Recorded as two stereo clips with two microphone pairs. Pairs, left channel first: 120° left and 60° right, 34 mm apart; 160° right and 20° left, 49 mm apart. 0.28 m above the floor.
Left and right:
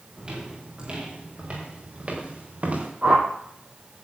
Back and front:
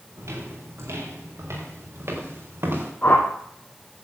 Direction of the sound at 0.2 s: 5° left.